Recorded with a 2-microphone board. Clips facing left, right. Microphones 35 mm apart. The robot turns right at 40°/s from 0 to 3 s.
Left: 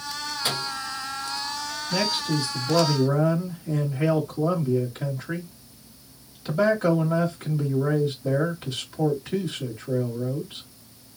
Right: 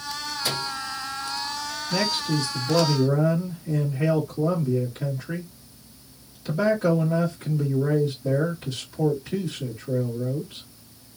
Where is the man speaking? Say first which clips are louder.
Even; 30° left, 1.4 m; by 10.7 s 75° left, 1.4 m.